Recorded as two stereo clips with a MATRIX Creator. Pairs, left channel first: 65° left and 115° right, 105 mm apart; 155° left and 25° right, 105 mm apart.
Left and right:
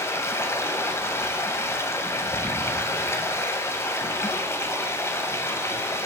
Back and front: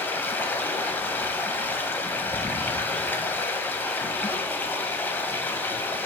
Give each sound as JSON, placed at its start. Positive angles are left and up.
{"t": 0.0, "sound": "running water", "azimuth_deg": 105, "distance_m": 1.0}